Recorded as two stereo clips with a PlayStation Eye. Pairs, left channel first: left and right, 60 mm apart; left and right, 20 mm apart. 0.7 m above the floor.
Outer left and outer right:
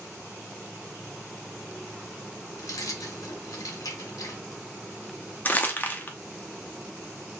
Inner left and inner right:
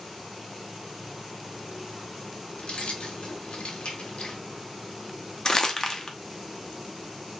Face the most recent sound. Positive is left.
turn(degrees=30)  # may be behind; listen again after turning